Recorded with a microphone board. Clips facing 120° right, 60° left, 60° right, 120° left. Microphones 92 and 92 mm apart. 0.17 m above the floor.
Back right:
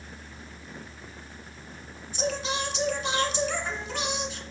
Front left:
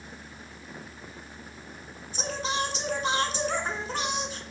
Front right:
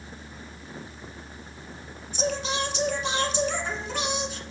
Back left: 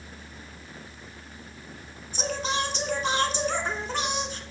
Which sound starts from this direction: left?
Singing, at 2.1 s.